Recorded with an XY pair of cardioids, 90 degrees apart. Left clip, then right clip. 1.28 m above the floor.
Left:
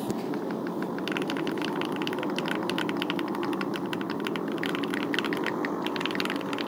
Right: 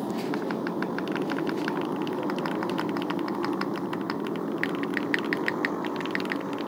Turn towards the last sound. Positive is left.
turn(degrees=-5)